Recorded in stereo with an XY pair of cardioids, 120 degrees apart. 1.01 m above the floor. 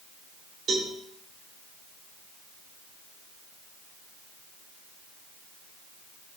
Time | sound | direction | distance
0.7 | a cowbell | 45° right | 4 m